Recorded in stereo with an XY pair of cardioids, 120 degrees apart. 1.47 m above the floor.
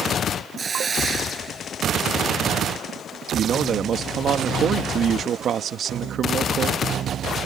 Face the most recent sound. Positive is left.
turn(degrees=-50)